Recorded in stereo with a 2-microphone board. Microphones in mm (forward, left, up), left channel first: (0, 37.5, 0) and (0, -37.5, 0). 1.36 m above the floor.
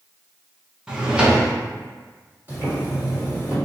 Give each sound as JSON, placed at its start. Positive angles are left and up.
{"t": 0.9, "sound": "a drawer", "side_deg": -15, "distance_m": 0.6}
{"t": 2.5, "sound": "boiling", "side_deg": -35, "distance_m": 1.3}